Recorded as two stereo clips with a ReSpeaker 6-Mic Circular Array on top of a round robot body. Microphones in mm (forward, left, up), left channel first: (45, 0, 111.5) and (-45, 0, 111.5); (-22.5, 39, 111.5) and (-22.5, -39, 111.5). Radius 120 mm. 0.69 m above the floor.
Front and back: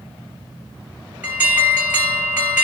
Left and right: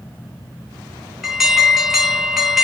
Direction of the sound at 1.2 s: 165° right.